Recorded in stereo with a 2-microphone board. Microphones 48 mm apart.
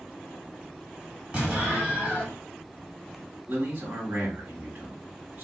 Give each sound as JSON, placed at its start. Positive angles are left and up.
{"t": 1.3, "sound": "an explosion", "side_deg": -15, "distance_m": 1.9}
{"t": 3.5, "sound": "a man speaking", "side_deg": -30, "distance_m": 1.3}